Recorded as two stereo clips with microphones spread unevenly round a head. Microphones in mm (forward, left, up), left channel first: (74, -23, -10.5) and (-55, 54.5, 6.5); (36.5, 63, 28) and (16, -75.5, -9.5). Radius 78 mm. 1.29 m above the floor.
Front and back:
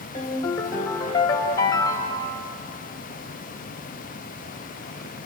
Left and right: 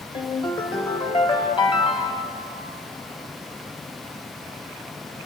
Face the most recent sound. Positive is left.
turn(degrees=35)